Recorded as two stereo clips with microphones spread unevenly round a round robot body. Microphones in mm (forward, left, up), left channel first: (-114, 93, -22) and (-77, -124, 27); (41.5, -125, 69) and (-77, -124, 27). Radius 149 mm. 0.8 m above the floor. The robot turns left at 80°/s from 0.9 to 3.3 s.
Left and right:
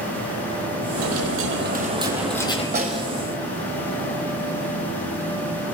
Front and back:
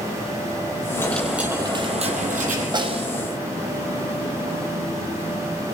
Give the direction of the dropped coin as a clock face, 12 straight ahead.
2 o'clock.